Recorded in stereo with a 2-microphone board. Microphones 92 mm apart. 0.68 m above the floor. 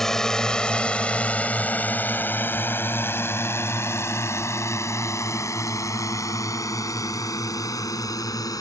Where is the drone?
5° left (ahead or behind); by 8.6 s 40° left (ahead or behind).